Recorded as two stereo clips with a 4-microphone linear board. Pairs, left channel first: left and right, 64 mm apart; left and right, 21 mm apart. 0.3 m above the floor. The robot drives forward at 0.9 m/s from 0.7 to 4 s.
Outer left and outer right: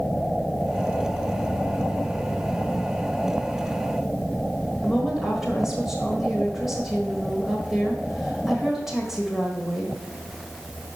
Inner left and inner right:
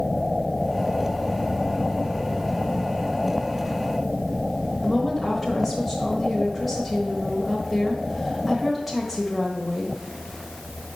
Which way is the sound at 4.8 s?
5° right (ahead or behind).